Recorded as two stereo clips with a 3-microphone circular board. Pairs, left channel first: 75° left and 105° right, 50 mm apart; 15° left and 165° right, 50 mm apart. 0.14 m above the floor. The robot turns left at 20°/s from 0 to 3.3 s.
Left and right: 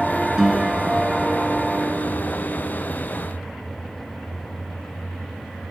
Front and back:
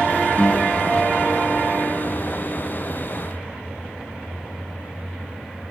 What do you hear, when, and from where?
0.4 s a guitar: 30° right, 1.9 m; by 2.8 s 80° right, 1.9 m